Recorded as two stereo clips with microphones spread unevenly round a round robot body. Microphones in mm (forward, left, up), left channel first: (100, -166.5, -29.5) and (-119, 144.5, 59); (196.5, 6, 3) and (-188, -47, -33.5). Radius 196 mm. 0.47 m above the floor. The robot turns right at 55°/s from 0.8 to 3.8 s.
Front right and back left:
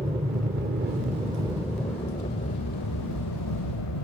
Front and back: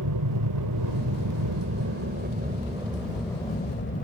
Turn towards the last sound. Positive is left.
turn(degrees=-55)